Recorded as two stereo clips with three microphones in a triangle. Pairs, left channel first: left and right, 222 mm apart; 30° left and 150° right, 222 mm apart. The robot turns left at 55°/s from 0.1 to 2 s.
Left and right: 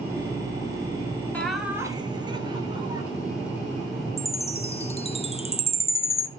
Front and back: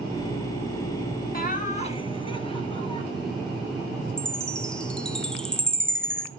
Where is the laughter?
10° left, 1.9 m; by 3.0 s 25° right, 1.9 m.